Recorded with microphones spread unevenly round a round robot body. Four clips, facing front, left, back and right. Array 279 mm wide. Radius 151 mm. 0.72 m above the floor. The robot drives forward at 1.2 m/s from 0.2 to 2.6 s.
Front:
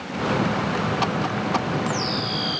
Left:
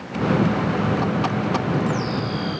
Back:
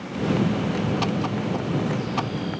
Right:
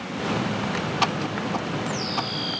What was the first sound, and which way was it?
Only background noise.